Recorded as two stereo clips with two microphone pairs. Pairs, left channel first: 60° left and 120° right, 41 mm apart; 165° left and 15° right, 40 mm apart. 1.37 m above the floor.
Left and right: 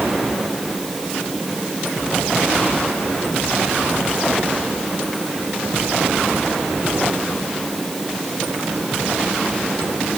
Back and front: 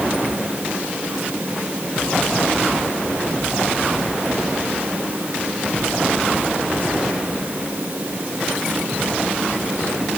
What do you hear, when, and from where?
Only background noise.